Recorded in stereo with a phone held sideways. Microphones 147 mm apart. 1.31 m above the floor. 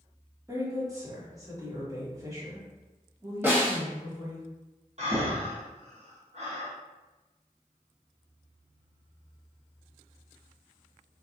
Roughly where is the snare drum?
Centre.